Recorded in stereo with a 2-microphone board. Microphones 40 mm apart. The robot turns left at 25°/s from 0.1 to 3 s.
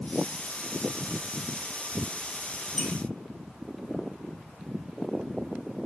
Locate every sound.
2.8 s a squeak: 5° left (ahead or behind), 1.7 m; by 2.9 s centre (ahead or behind), 1.7 m